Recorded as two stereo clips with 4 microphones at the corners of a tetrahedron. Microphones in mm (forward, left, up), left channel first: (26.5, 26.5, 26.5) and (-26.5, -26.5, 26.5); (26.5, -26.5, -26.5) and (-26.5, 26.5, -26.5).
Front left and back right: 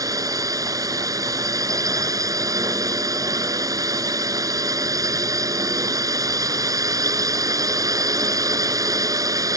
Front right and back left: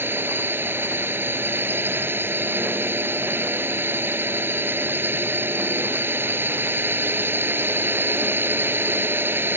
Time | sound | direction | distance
0.0 | a drone | 170° right | ?